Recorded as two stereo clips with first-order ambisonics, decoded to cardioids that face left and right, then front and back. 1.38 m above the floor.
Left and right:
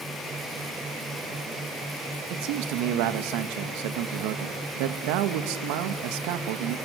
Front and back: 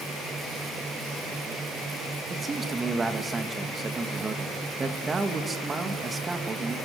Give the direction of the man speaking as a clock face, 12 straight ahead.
3 o'clock.